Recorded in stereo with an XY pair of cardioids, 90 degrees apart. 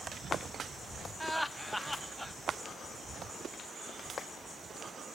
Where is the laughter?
5° left, 0.9 m.